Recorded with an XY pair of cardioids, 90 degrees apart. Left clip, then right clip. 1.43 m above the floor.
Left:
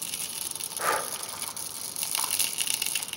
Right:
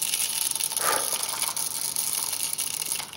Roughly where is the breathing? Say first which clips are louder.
Even; ahead.